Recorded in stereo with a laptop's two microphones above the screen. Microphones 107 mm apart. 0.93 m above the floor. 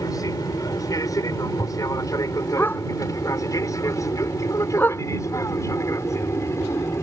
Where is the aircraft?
35° left (ahead or behind); by 7.0 s 25° left (ahead or behind).